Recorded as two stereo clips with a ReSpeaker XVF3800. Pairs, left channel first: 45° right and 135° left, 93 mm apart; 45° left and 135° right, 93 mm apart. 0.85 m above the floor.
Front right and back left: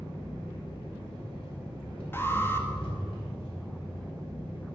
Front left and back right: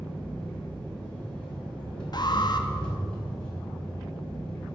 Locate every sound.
0.0 s an engine running: 35° right, 5 m
2.1 s an alarm: 20° left, 1.6 m